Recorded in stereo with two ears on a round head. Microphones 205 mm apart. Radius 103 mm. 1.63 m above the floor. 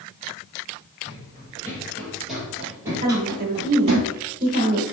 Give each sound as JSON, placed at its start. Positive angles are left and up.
{"t": 1.1, "sound": "running footsteps", "side_deg": 20, "distance_m": 1.7}
{"t": 3.0, "sound": "a woman speaking", "side_deg": -35, "distance_m": 1.2}